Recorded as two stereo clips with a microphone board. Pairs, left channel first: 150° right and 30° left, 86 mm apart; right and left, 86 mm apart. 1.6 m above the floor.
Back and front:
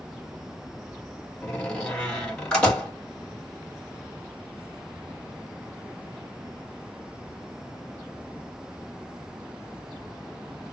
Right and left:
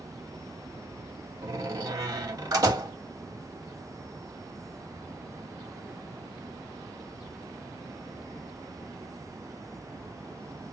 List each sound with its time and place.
1.4 s a door slam: 130° left, 2.5 m